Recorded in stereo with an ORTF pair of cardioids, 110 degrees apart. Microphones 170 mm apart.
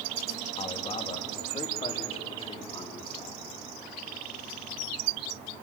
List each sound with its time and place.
0.6 s a man speaking: 35° left, 2.5 m